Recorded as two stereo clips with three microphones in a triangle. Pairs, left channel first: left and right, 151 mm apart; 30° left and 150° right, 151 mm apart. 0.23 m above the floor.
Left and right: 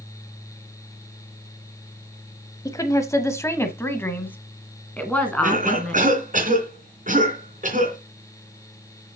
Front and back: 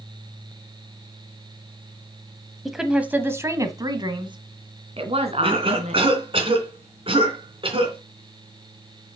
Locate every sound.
2.6 s a woman speaking: 125° left, 1.0 m; by 6.0 s 175° left, 2 m
5.4 s a cough: 100° right, 3 m